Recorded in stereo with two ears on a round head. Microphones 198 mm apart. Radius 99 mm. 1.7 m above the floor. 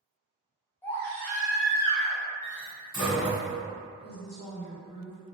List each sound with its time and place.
0.8 s a baby crying: 10° left (ahead or behind), 0.7 m
2.4 s a door slam: 15° left (ahead or behind), 1.4 m
4.0 s a woman speaking: 70° left (ahead or behind), 1.1 m